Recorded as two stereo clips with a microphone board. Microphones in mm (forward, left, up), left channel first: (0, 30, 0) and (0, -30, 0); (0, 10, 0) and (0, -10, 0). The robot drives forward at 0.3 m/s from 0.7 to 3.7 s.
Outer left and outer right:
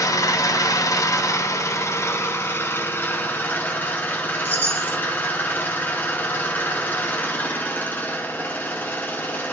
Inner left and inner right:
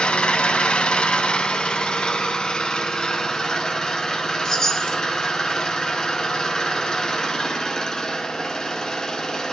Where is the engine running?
75° left (ahead or behind), 0.7 m; by 9.5 s 35° left (ahead or behind), 1.2 m.